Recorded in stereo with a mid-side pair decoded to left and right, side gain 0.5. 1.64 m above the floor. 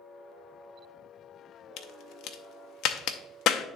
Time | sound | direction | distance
1.8 | a crack | 70° left | 0.7 m